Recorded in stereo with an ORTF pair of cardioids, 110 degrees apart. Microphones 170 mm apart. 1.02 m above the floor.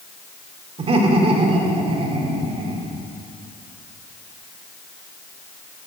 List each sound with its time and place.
0.8 s laughter: 35° right, 3 m